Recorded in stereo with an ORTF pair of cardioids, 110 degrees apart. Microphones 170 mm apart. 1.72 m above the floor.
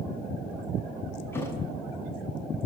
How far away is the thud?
About 7 m.